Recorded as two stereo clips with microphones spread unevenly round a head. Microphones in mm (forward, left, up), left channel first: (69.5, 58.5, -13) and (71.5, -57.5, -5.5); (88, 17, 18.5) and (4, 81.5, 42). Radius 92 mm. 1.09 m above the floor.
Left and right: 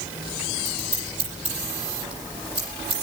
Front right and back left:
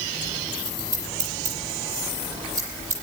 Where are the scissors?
145° right, 9.5 m.